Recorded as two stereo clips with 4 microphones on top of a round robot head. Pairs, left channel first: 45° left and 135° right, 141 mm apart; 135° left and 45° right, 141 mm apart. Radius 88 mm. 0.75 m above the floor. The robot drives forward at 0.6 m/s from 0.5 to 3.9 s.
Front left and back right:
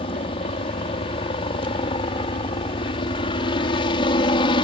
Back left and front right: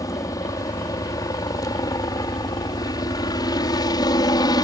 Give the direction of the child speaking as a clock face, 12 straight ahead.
I don't hear a child speaking.